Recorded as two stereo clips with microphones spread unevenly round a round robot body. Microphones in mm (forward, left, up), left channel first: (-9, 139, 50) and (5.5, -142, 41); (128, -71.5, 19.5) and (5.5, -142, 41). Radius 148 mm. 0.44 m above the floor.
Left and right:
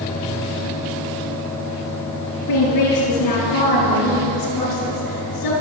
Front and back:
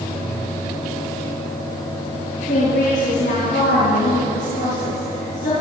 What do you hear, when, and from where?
2.5 s a woman speaking: 75° left, 7 m; by 5.5 s 85° left, 6 m